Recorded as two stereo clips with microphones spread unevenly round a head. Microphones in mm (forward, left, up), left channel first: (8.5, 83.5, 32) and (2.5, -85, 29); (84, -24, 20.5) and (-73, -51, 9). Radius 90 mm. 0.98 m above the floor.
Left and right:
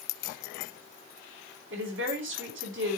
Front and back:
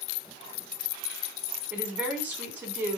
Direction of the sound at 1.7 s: 95° right.